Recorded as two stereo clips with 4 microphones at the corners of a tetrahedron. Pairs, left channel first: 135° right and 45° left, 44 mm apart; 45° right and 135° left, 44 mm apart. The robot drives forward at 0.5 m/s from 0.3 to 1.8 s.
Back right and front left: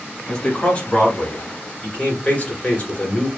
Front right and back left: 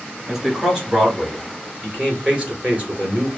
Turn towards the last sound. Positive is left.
turn(degrees=-170)